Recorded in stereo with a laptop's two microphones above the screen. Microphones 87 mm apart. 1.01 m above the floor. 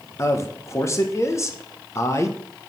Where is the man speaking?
35° left (ahead or behind), 0.9 m.